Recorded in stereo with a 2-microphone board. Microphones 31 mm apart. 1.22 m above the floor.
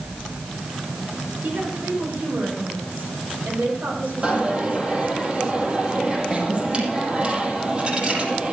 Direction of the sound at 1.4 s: 80° right.